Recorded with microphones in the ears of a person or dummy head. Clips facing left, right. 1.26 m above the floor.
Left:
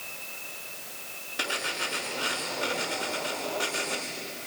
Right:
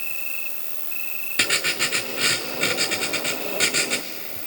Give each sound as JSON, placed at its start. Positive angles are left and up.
{"t": 0.0, "sound": "an insect", "side_deg": -45, "distance_m": 1.2}
{"t": 1.4, "sound": "writing", "side_deg": -30, "distance_m": 1.1}